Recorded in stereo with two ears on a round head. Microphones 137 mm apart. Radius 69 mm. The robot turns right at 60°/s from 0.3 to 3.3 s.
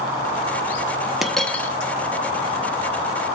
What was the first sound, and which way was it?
A dropped coin, 5° right.